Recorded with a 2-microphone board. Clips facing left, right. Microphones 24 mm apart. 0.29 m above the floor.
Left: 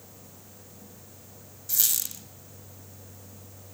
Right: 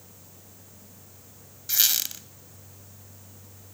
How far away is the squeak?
About 1.2 m.